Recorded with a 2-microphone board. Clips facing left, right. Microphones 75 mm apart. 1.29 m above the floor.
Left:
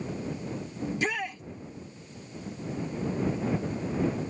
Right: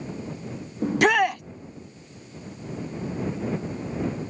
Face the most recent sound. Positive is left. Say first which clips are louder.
# right 12 dB
turn(degrees=-70)  # may be behind; listen again after turning